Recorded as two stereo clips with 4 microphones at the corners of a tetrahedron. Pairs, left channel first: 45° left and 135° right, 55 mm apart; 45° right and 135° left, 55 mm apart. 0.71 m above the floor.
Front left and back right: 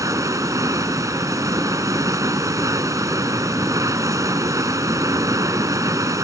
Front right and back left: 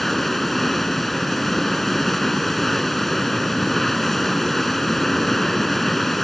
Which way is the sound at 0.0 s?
135° right.